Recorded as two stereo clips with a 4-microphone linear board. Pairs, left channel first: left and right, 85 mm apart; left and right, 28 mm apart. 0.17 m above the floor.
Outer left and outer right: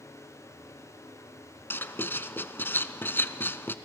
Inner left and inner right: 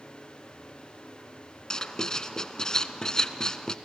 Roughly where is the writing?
Left.